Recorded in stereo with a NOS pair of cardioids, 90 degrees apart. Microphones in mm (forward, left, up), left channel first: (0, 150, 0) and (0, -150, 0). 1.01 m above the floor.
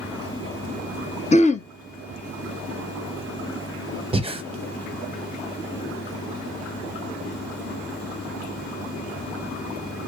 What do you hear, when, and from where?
1.3 s throat clearing: 25° left, 0.7 m
4.1 s breathing: 20° right, 0.8 m